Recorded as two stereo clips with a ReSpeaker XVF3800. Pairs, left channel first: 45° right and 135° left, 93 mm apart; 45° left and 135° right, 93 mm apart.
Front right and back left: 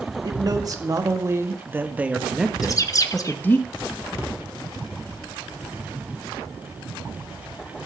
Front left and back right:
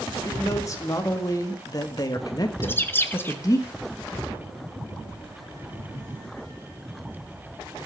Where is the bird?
10° right, 0.9 m.